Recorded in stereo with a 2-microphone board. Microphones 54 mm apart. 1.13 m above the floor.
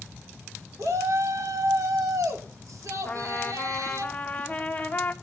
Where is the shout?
75° right (ahead or behind), 3.5 m.